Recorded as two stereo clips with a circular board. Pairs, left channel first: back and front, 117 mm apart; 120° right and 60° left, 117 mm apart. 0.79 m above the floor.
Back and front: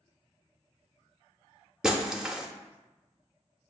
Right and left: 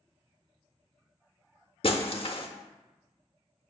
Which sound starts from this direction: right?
Breaking glass, at 1.8 s.